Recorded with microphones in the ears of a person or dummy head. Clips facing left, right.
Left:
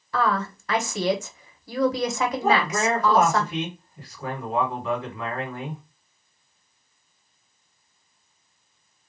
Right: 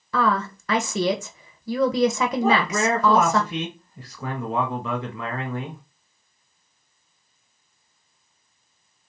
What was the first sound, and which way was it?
A woman speaking, 70° right (ahead or behind).